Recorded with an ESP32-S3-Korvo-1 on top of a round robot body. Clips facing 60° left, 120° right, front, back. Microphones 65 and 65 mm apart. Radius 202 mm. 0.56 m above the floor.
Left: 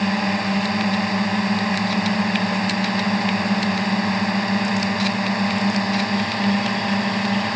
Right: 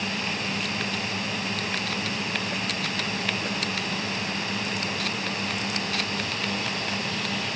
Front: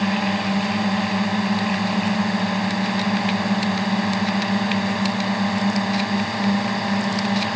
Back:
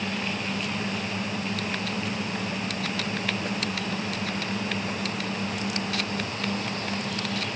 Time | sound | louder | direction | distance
0.0 | a drone | left 9 dB, front 9 dB | 20° left | ?